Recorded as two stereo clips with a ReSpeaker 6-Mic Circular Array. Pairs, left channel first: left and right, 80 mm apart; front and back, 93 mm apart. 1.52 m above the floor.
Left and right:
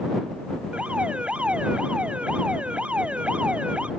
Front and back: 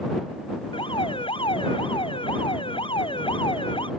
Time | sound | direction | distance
0.7 | an alarm | 15° right | ?